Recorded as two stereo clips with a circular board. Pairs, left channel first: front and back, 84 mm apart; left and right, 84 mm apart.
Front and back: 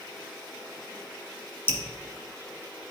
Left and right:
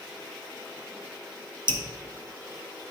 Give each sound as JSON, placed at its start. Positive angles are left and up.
{"t": 1.7, "sound": "dripping", "azimuth_deg": -65, "distance_m": 1.1}